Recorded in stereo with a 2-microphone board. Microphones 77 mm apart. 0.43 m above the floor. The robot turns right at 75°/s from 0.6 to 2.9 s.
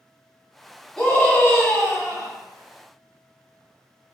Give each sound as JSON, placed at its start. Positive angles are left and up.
{"t": 1.0, "sound": "a scream", "azimuth_deg": 15, "distance_m": 0.9}